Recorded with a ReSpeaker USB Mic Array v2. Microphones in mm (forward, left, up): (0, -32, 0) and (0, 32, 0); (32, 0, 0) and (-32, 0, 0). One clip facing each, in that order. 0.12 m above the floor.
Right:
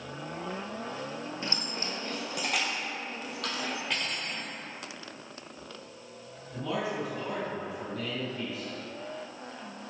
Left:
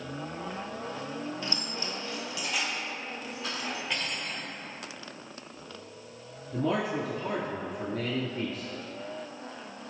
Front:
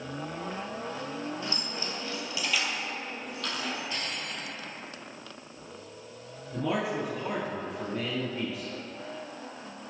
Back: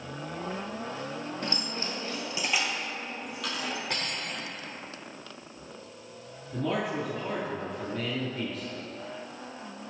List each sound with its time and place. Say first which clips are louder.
1.4 s keys jangling: even, back 1 dB; 150° right, 1.5 m; by 3.8 s 90° right, 2.5 m
3.9 s cutlery clinking: even, back 1 dB; straight behind, 1.4 m
6.5 s a man speaking: left 4 dB, even; 80° left, 1.9 m